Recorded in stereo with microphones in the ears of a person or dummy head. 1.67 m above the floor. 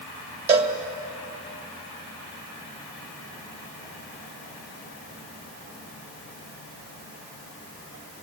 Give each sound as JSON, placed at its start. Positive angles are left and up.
{"t": 0.5, "sound": "a cowbell", "side_deg": -35, "distance_m": 1.9}